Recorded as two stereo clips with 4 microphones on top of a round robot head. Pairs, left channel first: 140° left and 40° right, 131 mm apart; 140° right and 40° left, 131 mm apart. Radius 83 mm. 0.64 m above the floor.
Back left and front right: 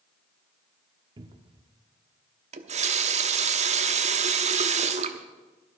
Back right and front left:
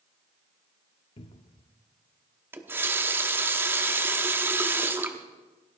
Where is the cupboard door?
95° right, 0.8 m.